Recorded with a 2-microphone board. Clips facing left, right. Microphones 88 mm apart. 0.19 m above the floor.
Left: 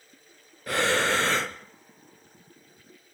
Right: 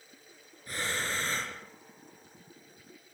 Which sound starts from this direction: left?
Breathing, at 0.7 s.